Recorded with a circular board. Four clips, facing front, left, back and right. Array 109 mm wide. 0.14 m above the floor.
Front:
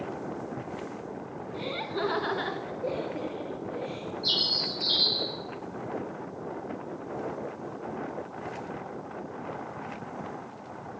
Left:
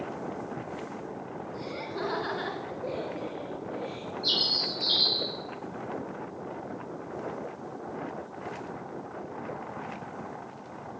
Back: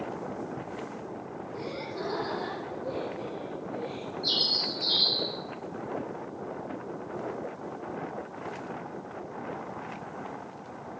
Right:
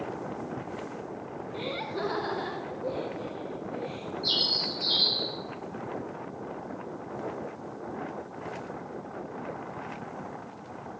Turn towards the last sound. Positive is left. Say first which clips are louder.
# even, even
turn(degrees=60)